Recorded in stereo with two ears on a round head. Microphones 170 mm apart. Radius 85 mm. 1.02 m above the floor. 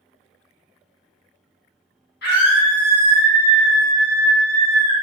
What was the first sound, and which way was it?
A scream, 60° left (ahead or behind).